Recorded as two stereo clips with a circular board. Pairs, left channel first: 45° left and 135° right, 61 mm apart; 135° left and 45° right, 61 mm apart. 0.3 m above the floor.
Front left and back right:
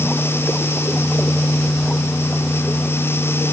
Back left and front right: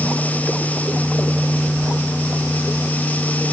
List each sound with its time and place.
Only background noise.